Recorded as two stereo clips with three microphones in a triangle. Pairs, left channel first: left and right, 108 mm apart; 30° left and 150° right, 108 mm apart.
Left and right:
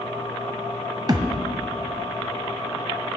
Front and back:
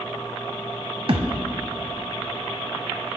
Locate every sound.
1.1 s a thud: 135° right, 0.8 m